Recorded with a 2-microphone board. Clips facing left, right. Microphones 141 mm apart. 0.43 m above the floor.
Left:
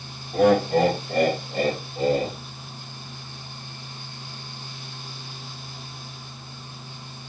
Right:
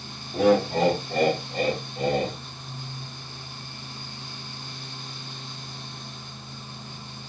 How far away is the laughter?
About 2.5 m.